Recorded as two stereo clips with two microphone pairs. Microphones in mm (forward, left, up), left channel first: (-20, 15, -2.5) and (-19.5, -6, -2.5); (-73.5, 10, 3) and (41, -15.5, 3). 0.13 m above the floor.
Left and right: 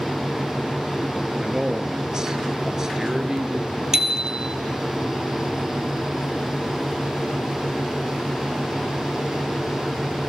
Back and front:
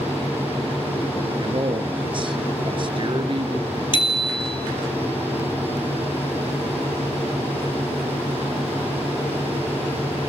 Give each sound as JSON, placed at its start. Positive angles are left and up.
{"t": 1.4, "sound": "a man speaking", "azimuth_deg": -35, "distance_m": 1.7}
{"t": 3.9, "sound": "a bicycle bell", "azimuth_deg": -150, "distance_m": 2.0}